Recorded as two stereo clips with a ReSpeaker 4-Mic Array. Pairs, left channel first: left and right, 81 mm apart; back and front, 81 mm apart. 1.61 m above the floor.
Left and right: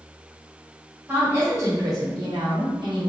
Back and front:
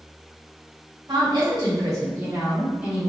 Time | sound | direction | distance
1.1 | a woman speaking | 30° right | 1.7 m